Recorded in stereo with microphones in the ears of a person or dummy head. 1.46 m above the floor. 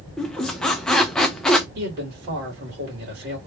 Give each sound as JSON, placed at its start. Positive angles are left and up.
{"t": 0.2, "sound": "a squeak", "side_deg": 5, "distance_m": 0.6}
{"t": 1.8, "sound": "a man speaking", "side_deg": -45, "distance_m": 2.5}